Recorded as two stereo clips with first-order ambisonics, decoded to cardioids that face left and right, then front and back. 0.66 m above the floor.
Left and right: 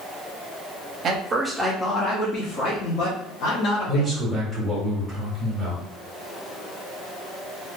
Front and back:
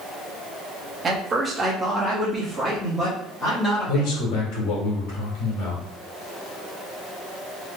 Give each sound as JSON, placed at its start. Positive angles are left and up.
{"t": 1.0, "sound": "a man speaking", "azimuth_deg": -125, "distance_m": 0.8}
{"t": 3.9, "sound": "a man speaking", "azimuth_deg": 0, "distance_m": 1.6}